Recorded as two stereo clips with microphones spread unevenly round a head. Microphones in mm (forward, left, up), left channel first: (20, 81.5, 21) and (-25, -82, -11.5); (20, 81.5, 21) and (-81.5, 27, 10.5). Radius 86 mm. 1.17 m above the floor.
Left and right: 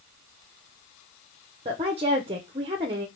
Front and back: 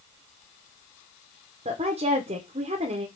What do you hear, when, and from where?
1.6 s a woman speaking: 150° right, 0.7 m